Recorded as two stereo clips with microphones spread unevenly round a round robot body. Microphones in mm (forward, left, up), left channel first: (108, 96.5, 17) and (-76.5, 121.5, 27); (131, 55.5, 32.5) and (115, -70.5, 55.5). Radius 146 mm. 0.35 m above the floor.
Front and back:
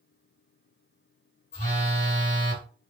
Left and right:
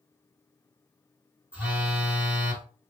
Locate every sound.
1.5 s a phone buzzing: 15° right, 1.7 m